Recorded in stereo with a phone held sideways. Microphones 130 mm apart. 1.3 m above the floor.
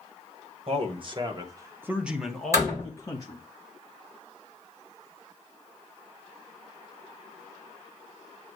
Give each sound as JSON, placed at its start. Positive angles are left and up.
{"t": 0.7, "sound": "a man speaking", "side_deg": -50, "distance_m": 1.3}
{"t": 2.5, "sound": "a door slam", "side_deg": -25, "distance_m": 4.5}